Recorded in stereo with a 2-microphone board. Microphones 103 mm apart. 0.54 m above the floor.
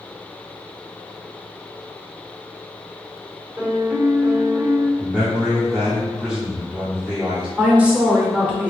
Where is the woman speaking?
15° right (ahead or behind), 1.3 m.